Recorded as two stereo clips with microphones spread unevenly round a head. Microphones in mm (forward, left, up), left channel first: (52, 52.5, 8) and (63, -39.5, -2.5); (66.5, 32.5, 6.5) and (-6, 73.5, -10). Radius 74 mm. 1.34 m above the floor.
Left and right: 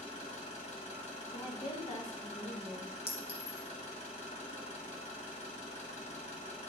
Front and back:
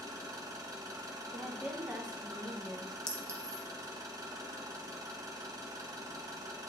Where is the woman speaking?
70° left, 2.0 m.